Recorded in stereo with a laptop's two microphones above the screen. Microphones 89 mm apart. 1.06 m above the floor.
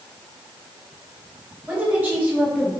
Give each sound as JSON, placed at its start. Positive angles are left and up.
{"t": 1.7, "sound": "a woman speaking", "side_deg": -20, "distance_m": 1.8}